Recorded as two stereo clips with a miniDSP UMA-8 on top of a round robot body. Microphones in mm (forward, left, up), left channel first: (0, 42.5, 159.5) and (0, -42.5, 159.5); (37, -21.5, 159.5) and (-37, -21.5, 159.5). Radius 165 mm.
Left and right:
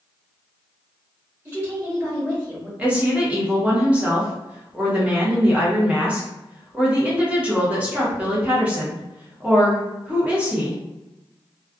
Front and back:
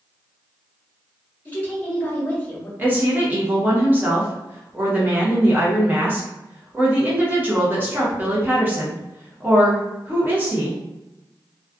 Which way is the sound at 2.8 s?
145° right.